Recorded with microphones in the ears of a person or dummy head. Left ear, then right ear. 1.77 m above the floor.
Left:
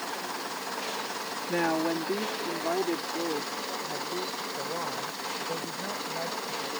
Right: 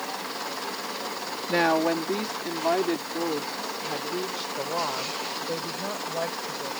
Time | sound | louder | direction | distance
1.5 | a woman speaking | right 5 dB | 30° right (ahead or behind) | ?